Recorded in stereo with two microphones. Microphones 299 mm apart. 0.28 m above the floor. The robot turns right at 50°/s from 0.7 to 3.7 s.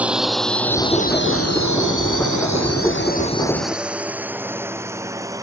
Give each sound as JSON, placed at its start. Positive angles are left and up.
{"t": 0.0, "sound": "a drone", "side_deg": -5}